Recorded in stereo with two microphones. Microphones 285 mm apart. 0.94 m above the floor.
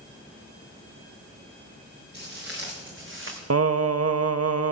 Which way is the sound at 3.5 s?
55° right (ahead or behind).